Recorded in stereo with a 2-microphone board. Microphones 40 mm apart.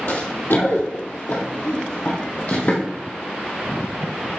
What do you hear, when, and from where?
0.1 s running footsteps: 65° left (ahead or behind), 1.8 m; by 2.8 s 40° left (ahead or behind), 2 m